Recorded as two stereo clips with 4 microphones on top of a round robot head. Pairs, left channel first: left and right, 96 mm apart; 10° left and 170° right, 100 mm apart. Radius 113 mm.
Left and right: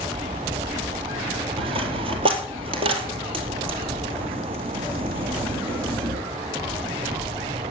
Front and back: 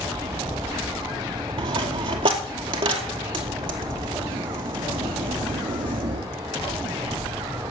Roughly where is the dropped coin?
Behind right.